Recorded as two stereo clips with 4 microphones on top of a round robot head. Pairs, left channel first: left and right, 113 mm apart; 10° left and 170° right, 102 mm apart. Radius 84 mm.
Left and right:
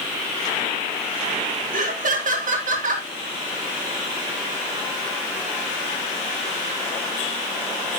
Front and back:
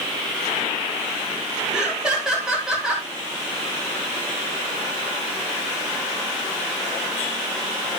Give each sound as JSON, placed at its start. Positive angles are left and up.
{"t": 1.7, "sound": "laughter", "azimuth_deg": -85, "distance_m": 4.0}